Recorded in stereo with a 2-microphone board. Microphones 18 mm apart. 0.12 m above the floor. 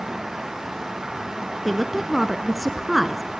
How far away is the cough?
No cough in this recording.